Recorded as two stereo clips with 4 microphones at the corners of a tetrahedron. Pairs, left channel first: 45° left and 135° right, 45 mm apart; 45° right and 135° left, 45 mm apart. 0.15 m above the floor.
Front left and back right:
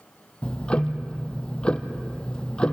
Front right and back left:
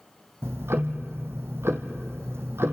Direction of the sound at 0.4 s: 115° left.